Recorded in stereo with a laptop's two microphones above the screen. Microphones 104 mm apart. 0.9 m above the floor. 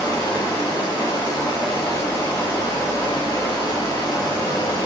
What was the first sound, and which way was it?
Running water, 40° left (ahead or behind).